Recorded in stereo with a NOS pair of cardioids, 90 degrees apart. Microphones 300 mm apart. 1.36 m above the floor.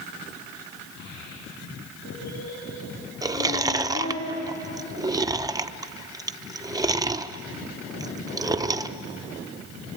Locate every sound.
1.0 s a child speaking: 65° left, 9 m; by 4.2 s 75° left, 9 m
3.2 s chewing: 10° right, 0.8 m